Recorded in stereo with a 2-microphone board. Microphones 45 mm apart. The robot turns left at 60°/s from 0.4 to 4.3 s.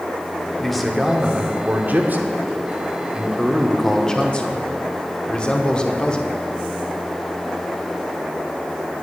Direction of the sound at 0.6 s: 10° left.